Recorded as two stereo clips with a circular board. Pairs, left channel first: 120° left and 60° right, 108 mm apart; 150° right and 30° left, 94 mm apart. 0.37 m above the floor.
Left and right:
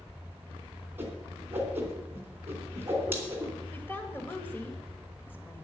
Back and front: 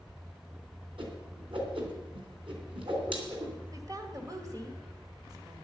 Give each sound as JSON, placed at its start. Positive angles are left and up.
{"t": 1.0, "sound": "a whoosh", "azimuth_deg": 10, "distance_m": 3.0}
{"t": 3.7, "sound": "a woman speaking", "azimuth_deg": 60, "distance_m": 1.9}